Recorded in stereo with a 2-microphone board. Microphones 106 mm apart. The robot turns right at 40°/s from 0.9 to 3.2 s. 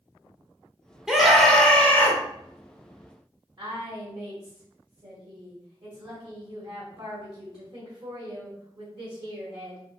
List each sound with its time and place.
1.1 s a scream: 5° right, 1.1 m; by 2.2 s 40° left, 1.1 m
3.6 s a woman speaking: 50° right (ahead or behind), 2.0 m